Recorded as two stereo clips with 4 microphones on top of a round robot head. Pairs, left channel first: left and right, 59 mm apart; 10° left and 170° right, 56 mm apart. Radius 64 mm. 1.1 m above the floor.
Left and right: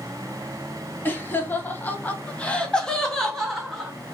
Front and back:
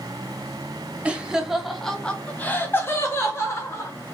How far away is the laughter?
About 0.8 m.